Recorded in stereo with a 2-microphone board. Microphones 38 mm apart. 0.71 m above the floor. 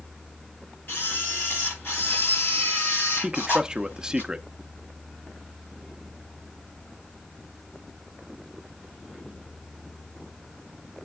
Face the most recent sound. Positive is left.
turn(degrees=-15)  # may be behind; listen again after turning